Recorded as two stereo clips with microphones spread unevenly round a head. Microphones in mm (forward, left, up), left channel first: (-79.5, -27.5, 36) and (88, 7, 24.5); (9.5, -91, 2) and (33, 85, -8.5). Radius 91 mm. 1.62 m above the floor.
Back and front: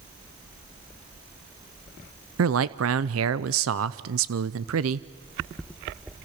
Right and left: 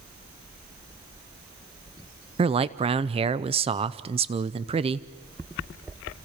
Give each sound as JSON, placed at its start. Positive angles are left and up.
{"t": 2.4, "sound": "a man speaking", "azimuth_deg": 20, "distance_m": 0.6}